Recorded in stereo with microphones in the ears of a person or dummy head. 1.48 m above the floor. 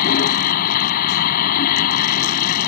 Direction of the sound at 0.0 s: 50° left (ahead or behind).